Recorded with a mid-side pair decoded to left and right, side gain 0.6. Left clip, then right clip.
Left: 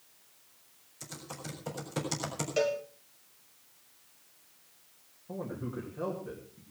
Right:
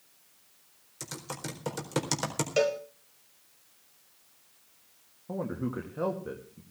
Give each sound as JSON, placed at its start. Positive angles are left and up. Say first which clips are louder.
{"t": 1.0, "sound": "typing on a keyboard", "louder": "right 4 dB", "azimuth_deg": -55, "distance_m": 4.0}
{"t": 2.6, "sound": "a cowbell", "louder": "right 3 dB", "azimuth_deg": -30, "distance_m": 1.6}
{"t": 5.3, "sound": "a man speaking", "louder": "right 4 dB", "azimuth_deg": -40, "distance_m": 2.5}